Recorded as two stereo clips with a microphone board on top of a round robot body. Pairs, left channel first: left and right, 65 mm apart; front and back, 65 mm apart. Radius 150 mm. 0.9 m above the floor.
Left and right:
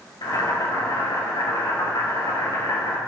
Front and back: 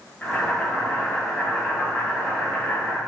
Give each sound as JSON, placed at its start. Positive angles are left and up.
{"t": 0.2, "sound": "boiling", "azimuth_deg": 75, "distance_m": 2.0}